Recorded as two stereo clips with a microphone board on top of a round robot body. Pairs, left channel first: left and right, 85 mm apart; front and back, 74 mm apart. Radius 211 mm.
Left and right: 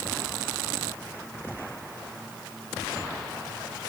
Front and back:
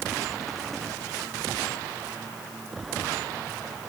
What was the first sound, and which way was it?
Only background noise.